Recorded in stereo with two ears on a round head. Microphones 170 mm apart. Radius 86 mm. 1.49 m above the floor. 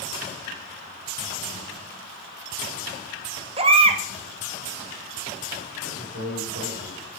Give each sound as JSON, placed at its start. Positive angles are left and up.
{"t": 3.6, "sound": "a baby crying", "side_deg": -30, "distance_m": 1.3}
{"t": 5.8, "sound": "a man speaking", "side_deg": -85, "distance_m": 6.5}